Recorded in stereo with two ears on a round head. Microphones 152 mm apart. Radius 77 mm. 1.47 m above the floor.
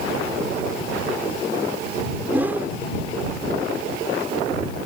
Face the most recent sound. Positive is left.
turn(degrees=-10)  # may be behind; listen again after turning